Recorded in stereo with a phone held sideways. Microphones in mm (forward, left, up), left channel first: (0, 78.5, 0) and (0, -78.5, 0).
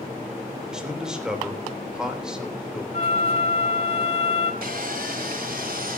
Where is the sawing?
70° right (ahead or behind), 2.5 m.